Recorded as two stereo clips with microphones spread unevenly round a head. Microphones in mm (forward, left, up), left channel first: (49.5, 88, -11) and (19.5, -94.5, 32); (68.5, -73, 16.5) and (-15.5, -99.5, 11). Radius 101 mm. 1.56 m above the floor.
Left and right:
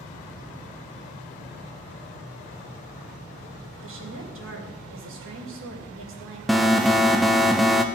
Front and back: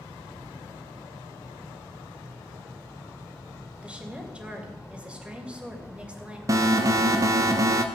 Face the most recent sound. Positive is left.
turn(degrees=160)